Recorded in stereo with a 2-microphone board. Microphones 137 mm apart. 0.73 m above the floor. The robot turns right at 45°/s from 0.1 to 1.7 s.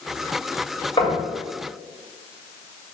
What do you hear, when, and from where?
1.0 s knocking: 35° left (ahead or behind), 3 m; by 1.2 s 45° left (ahead or behind), 3 m